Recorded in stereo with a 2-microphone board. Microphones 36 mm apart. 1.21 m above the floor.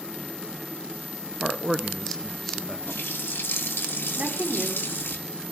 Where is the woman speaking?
40° right (ahead or behind), 3.5 m.